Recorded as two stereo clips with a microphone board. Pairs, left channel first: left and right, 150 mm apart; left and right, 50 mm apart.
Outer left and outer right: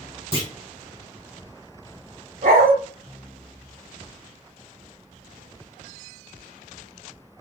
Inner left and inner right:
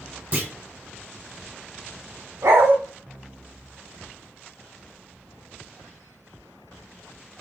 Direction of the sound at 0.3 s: 40° right (ahead or behind).